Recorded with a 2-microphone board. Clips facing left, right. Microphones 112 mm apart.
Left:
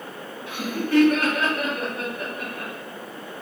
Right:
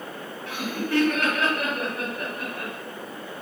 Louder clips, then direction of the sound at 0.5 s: Left 3 dB; 15° left (ahead or behind).